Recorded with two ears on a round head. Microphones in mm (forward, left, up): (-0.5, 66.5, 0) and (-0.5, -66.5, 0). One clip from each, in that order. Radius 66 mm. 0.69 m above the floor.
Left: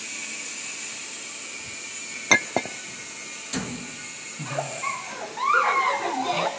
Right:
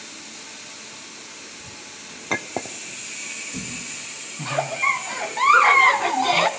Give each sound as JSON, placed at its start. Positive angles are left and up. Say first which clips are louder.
{"t": 2.3, "sound": "a clink", "louder": "left 6 dB", "side_deg": 85, "distance_m": 0.5}
{"t": 4.4, "sound": "a giggle", "louder": "right 7 dB", "side_deg": -45, "distance_m": 1.2}